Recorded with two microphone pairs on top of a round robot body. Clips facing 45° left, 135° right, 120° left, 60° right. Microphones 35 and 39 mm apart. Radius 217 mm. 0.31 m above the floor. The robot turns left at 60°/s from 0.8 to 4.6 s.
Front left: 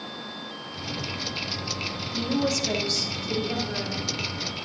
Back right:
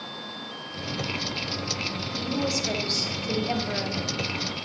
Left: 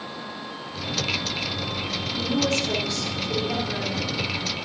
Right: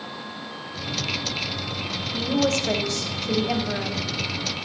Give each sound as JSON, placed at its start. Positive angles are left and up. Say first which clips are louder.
{"t": 2.1, "sound": "a woman speaking", "louder": "front left 3 dB, right 2 dB", "azimuth_deg": -20, "distance_m": 4.0}